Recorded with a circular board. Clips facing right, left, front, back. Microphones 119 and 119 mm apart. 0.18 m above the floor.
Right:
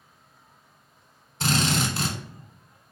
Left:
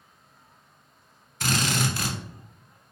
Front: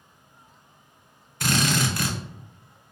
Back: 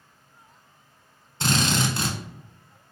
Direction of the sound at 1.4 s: 135° right.